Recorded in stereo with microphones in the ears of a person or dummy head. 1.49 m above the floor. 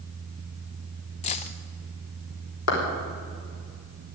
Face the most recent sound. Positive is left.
turn(degrees=80)